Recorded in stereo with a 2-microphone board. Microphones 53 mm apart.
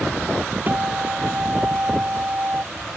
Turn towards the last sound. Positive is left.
turn(degrees=-40)  # may be behind; listen again after turning